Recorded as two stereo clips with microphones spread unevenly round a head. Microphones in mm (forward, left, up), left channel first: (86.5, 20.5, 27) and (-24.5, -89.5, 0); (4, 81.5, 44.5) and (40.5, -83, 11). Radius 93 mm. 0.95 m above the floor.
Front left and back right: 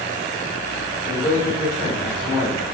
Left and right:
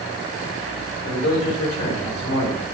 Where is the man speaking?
125° left, 3.5 m; by 2.6 s 110° left, 3.5 m.